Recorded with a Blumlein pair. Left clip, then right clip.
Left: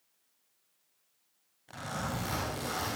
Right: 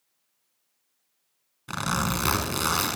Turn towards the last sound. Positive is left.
turn(degrees=-35)